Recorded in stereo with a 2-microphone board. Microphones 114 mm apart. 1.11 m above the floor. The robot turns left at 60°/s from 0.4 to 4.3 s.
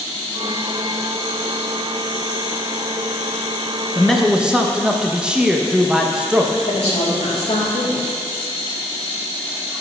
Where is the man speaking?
15° left (ahead or behind), 0.7 m; by 6.6 s 5° right (ahead or behind), 0.7 m.